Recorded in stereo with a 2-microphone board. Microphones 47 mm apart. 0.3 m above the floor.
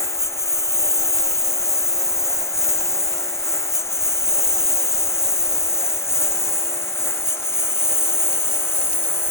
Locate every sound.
0.0 s a lawn mower: 85° left; by 9.3 s 60° left (ahead or behind)